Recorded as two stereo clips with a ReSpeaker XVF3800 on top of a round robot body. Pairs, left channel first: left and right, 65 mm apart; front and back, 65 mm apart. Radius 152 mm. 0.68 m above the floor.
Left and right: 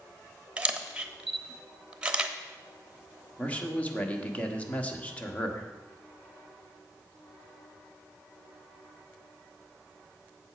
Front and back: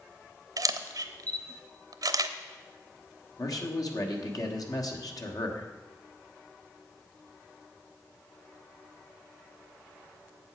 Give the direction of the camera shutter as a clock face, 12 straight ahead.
5 o'clock.